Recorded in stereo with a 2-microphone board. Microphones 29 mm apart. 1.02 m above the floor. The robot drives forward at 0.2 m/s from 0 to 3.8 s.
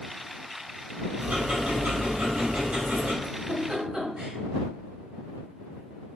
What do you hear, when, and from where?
1.2 s ticking: 70° right (ahead or behind), 2 m; by 3.1 s 65° right (ahead or behind), 2 m
3.2 s a giggle: 35° right (ahead or behind), 1.5 m; by 4.4 s 30° right (ahead or behind), 1.6 m